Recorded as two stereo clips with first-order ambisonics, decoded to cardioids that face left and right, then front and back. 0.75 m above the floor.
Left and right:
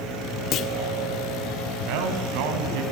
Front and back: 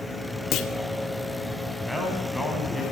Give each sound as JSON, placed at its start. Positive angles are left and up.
{"t": 0.5, "sound": "a clunk", "azimuth_deg": 45, "distance_m": 2.0}
{"t": 1.9, "sound": "a man speaking", "azimuth_deg": -90, "distance_m": 5.0}